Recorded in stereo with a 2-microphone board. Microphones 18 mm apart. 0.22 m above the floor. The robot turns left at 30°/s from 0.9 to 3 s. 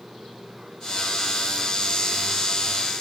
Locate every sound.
Only background noise.